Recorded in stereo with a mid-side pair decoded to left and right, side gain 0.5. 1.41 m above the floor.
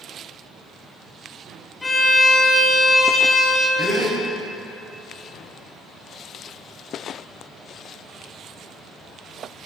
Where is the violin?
25° left, 2.5 m.